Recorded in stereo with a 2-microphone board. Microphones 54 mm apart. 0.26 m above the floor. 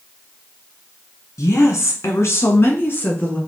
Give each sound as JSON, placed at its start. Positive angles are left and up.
{"t": 1.4, "sound": "a woman speaking", "side_deg": 70, "distance_m": 2.5}